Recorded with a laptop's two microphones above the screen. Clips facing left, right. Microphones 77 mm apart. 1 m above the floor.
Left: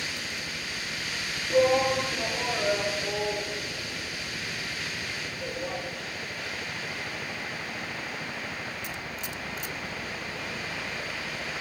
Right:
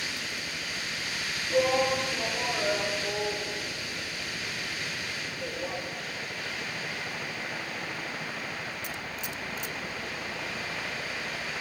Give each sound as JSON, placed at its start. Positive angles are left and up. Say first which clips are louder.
{"t": 1.5, "sound": "a shout", "louder": "left 3 dB", "side_deg": 10, "distance_m": 2.0}